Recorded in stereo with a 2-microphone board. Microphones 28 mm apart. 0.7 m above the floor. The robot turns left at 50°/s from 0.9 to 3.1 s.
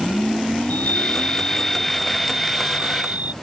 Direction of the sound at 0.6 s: 60° left.